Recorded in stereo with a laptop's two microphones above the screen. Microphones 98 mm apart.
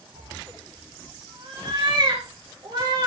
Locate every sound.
0.1 s a cat meowing: 55° right (ahead or behind), 4.5 m